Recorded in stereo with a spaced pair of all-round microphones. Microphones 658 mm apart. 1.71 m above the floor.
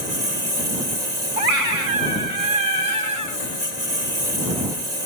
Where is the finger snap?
No finger snap in this recording.